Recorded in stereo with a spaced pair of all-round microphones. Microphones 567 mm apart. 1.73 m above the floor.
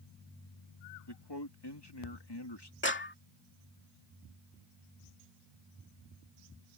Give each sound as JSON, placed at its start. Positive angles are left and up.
{"t": 1.1, "sound": "a man speaking", "side_deg": 40}
{"t": 2.8, "sound": "a clap", "side_deg": 20}